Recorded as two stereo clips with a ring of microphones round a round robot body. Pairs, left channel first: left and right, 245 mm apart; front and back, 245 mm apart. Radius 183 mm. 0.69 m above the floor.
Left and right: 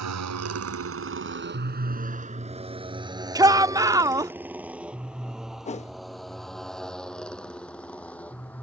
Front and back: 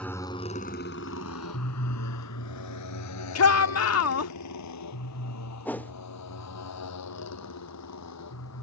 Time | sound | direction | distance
0.0 | a motorcycle | 85° right | ?
3.4 | a shout | 15° right | ?
5.7 | a whoosh | 75° left | ?